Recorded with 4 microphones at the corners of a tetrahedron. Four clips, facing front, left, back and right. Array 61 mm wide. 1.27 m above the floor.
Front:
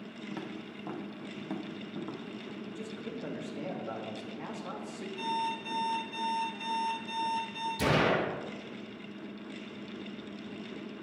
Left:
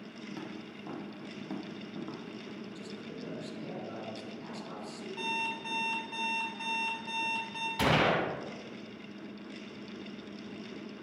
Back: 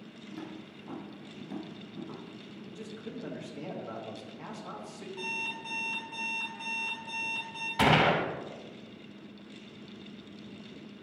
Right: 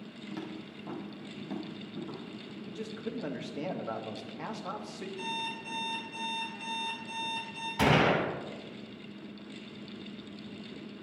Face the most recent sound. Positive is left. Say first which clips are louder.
# right 2 dB, back 4 dB
turn(degrees=-170)